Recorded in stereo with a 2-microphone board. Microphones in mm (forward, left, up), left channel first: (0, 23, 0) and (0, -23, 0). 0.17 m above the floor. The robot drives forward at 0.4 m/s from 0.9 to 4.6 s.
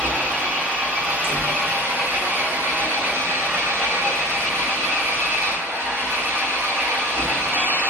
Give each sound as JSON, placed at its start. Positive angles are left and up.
{"t": 0.0, "sound": "an engine running", "side_deg": -35, "distance_m": 1.4}
{"t": 1.1, "sound": "a door slam", "side_deg": -50, "distance_m": 1.4}